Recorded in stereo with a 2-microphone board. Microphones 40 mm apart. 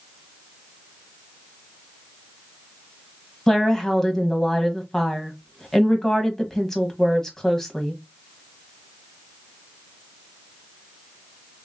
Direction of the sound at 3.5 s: 10° left (ahead or behind).